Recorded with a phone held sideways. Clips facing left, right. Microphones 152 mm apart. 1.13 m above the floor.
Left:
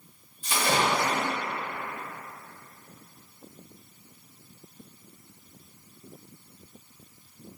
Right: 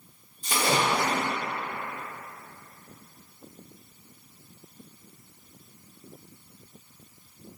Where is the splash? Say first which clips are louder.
Even; 40° right (ahead or behind), 1.4 m.